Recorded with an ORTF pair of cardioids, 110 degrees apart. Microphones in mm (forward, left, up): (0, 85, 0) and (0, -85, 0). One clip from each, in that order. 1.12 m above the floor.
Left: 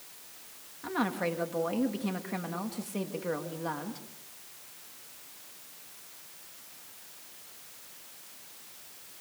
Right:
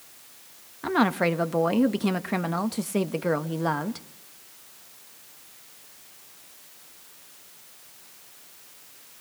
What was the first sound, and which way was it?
A woman speaking, 50° right.